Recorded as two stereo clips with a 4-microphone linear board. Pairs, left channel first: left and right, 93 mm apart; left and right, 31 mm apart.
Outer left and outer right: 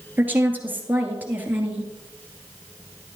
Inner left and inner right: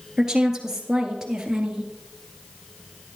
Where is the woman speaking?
20° right (ahead or behind), 1.9 m.